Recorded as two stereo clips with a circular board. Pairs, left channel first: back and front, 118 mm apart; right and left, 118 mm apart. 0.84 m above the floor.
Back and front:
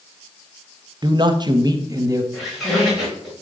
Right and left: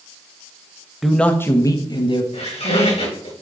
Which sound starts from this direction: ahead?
A man speaking, at 1.0 s.